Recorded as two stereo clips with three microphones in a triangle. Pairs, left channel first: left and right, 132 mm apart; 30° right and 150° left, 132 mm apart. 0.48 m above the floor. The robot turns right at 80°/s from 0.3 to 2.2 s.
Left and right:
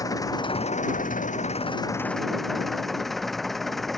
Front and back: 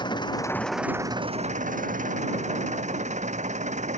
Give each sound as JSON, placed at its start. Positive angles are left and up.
{"t": 0.0, "sound": "an engine running", "azimuth_deg": 25}